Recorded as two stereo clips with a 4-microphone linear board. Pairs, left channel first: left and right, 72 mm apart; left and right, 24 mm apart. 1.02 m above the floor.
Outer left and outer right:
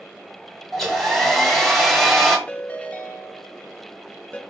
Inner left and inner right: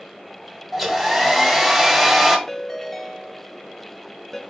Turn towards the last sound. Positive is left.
turn(degrees=20)  # may be behind; listen again after turning